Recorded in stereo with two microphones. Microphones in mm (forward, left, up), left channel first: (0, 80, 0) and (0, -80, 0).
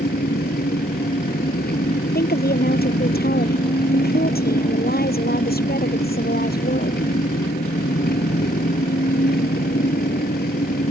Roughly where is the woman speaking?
Left.